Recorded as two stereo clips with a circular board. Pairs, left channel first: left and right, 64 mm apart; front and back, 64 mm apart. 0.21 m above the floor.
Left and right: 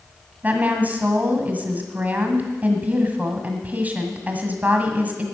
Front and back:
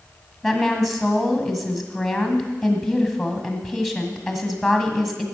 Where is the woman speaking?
85° right, 1.6 m.